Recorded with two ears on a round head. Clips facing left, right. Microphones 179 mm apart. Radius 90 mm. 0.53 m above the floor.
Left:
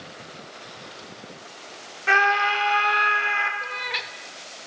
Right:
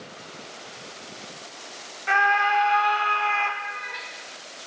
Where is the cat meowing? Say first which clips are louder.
Left 3 dB; 75° left (ahead or behind), 0.5 m.